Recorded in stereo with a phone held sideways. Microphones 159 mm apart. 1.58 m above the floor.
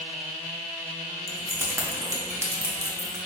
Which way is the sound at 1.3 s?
20° right (ahead or behind).